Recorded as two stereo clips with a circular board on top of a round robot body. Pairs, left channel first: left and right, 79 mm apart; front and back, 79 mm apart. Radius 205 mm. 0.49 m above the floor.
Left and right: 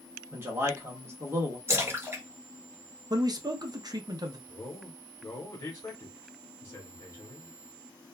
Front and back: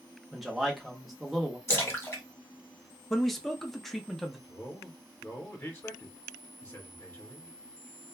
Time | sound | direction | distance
0.3 | a man speaking | 95° right | 1.3 m
1.7 | a splash | 45° right | 1.8 m
3.1 | a man speaking | 90° right | 0.9 m
4.5 | a man speaking | 45° left | 1.2 m